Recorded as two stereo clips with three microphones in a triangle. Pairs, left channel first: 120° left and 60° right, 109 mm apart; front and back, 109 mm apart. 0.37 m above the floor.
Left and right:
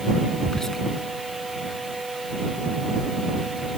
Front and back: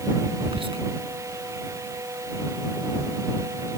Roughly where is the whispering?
Behind right.